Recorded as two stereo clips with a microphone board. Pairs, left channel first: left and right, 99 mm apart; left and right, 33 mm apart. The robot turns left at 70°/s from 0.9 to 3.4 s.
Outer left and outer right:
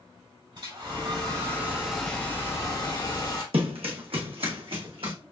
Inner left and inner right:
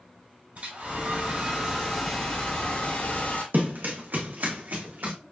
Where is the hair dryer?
105° right, 2.5 m; by 3.4 s 80° left, 2.5 m.